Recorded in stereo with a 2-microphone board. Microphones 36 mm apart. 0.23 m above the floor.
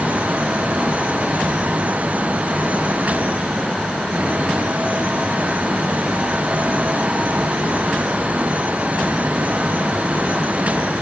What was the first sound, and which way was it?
Only background noise.